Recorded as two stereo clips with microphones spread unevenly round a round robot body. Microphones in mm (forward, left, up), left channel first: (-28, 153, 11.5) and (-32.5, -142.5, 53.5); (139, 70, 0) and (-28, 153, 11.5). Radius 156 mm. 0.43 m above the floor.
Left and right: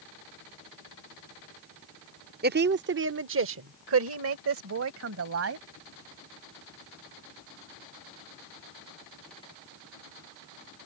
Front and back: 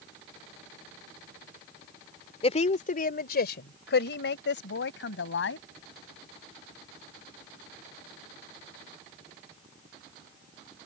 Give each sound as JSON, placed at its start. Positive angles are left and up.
{"t": 2.4, "sound": "a woman speaking", "azimuth_deg": -45}